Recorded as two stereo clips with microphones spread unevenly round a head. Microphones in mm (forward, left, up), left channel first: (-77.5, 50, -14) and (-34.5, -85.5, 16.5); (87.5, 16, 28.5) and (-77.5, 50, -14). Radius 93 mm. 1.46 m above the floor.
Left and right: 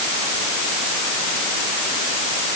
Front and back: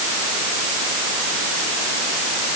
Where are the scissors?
I don't hear scissors.